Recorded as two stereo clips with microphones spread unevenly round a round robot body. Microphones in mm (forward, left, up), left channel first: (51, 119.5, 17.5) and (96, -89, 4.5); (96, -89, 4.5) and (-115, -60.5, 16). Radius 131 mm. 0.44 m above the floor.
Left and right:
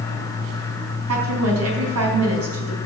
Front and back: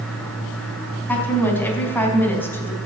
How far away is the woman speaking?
About 4.5 m.